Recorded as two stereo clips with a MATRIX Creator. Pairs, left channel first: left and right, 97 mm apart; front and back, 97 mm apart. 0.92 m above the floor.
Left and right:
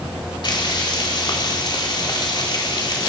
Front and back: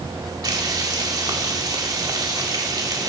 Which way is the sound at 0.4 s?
130° left.